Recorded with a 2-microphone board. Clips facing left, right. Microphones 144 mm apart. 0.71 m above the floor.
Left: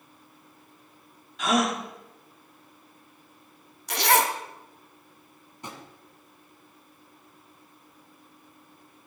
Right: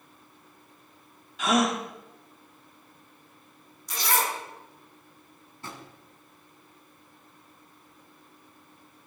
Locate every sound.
1.4 s a gasp: centre (ahead or behind), 1.3 m
3.9 s a zipper: 70° left (ahead or behind), 0.7 m
5.6 s a drawer: 20° left (ahead or behind), 1.3 m